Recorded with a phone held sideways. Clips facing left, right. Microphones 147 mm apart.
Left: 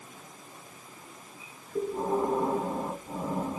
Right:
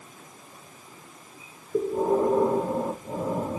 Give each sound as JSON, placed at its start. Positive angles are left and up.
{"t": 1.7, "sound": "breathing", "side_deg": -80, "distance_m": 4.5}